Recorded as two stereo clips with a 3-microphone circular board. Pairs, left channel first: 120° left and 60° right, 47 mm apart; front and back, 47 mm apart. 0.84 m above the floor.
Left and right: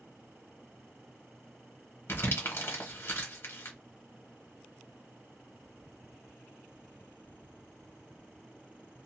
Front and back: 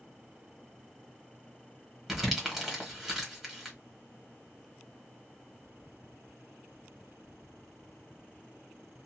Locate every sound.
2.1 s crumpling: 95° left, 1.3 m